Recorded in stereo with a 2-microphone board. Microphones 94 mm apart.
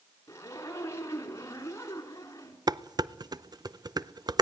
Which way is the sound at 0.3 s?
30° left (ahead or behind).